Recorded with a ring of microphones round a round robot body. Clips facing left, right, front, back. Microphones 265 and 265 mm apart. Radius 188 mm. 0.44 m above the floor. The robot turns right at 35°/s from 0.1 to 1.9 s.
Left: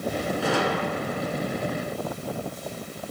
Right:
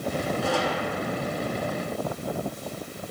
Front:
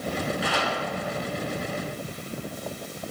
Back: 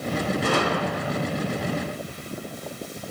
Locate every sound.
0.4 s a gunshot: 140° left, 2.5 m; by 1.3 s 165° left, 2.5 m